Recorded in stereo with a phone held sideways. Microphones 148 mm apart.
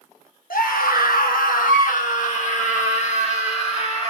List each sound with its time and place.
0.5 s a scream: 80° left, 1.3 m; by 4.1 s 45° left (ahead or behind), 2.5 m